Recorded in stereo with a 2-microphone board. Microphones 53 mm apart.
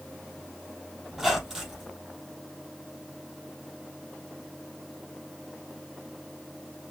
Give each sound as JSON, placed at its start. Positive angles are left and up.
{"t": 1.1, "sound": "a squeak", "side_deg": -10, "distance_m": 3.5}